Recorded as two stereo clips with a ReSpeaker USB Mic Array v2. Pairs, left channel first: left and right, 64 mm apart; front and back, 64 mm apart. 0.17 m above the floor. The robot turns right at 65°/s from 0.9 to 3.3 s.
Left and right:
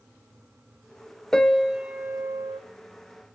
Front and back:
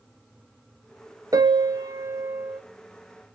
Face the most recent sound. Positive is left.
turn(degrees=-60)